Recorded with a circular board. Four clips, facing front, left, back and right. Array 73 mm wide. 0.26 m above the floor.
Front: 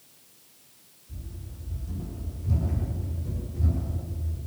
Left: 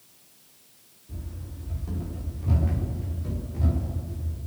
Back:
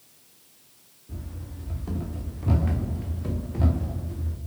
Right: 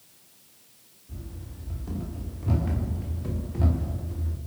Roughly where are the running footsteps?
Behind.